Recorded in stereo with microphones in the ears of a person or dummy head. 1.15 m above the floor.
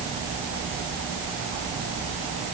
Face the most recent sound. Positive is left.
No sound to turn to.